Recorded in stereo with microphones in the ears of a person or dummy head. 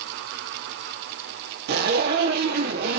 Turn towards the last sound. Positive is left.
turn(degrees=-55)  # may be behind; listen again after turning